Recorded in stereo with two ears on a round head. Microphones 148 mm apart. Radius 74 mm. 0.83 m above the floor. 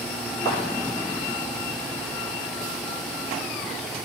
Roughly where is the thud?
Left.